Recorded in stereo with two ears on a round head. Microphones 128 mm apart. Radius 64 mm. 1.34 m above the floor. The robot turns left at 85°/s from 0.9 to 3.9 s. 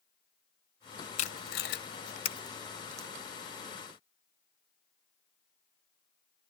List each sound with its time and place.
1.2 s tape being pulled: 50° left (ahead or behind), 0.6 m; by 3.1 s 30° right (ahead or behind), 0.6 m